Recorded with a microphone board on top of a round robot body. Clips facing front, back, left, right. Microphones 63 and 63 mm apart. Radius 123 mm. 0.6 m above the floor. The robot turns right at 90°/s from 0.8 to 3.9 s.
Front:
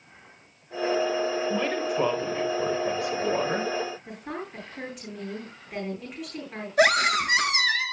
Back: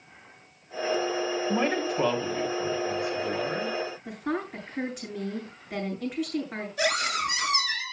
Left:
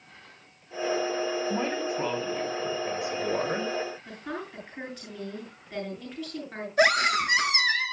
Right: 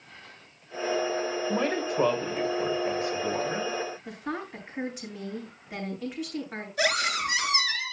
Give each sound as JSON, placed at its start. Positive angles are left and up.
{"t": 1.5, "sound": "a man speaking", "azimuth_deg": -120, "distance_m": 3.5}
{"t": 4.0, "sound": "a woman speaking", "azimuth_deg": -165, "distance_m": 9.0}
{"t": 6.8, "sound": "a scream", "azimuth_deg": 45, "distance_m": 6.0}